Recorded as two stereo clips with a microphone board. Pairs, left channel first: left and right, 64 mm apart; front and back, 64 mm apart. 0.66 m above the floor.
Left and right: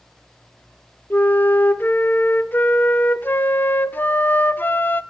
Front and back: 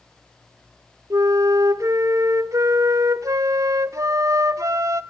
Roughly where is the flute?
Behind left.